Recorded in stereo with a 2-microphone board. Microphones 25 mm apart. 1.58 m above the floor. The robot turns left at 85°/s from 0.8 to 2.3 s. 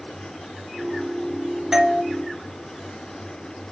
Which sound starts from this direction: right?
A doorbell, at 1.7 s.